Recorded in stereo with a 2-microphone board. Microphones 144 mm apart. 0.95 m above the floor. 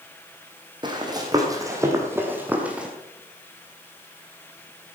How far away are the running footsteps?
About 3 m.